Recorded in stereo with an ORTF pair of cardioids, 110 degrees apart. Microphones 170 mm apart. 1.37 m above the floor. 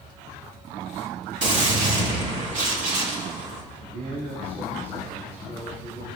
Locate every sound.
1.4 s a gunshot: 50° right, 3.5 m
3.8 s a man speaking: 70° right, 7.5 m